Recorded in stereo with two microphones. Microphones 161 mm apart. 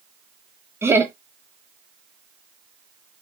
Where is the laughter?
15° right (ahead or behind), 1.0 m.